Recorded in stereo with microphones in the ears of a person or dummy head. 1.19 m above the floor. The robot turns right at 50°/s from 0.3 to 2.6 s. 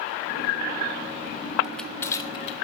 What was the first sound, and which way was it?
Crushing, 5° left (ahead or behind).